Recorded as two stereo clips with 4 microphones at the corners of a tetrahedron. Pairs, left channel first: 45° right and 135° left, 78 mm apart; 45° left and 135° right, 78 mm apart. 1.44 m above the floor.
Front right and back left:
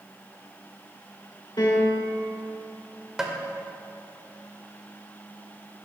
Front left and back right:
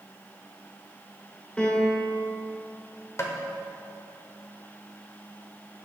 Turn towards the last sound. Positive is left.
turn(degrees=60)